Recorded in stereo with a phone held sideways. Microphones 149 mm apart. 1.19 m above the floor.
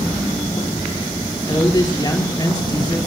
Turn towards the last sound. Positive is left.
turn(degrees=25)  # may be behind; listen again after turning